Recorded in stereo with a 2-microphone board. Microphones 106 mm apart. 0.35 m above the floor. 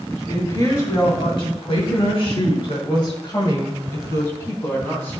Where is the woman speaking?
40° left (ahead or behind), 3 m; by 5.2 s 20° left (ahead or behind), 3.5 m.